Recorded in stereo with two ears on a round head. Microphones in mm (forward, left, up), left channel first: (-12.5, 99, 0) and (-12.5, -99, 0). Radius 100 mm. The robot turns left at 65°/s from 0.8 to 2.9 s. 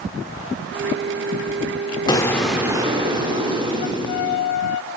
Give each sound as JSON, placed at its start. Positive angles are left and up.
{"t": 2.1, "sound": "an explosion", "azimuth_deg": 25, "distance_m": 0.7}